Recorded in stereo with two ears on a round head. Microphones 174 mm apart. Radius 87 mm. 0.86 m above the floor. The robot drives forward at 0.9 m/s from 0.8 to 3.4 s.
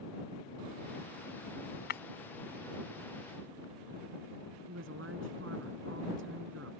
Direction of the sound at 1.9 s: 55° left (ahead or behind).